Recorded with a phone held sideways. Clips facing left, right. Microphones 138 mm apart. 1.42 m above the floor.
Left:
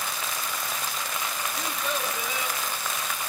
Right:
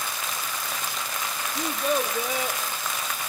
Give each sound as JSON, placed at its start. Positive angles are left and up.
{"t": 1.6, "sound": "a child speaking", "side_deg": -45, "distance_m": 0.8}